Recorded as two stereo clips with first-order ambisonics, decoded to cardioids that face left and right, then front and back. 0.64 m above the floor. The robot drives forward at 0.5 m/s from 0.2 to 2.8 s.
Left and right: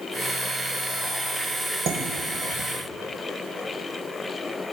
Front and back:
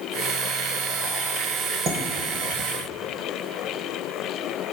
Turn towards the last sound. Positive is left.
turn(degrees=-140)